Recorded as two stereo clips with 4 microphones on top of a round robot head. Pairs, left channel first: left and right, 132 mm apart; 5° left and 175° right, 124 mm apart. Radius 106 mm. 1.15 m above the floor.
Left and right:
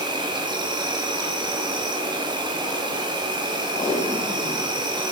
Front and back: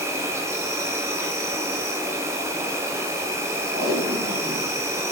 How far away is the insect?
About 0.9 m.